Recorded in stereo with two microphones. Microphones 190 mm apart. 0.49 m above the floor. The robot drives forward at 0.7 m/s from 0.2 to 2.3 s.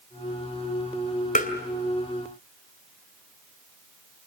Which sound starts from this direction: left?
Tapping, at 1.4 s.